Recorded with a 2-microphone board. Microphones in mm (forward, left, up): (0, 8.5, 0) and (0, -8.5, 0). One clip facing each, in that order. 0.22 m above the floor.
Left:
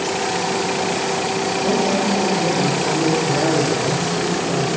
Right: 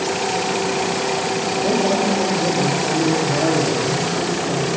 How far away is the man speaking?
About 7.5 m.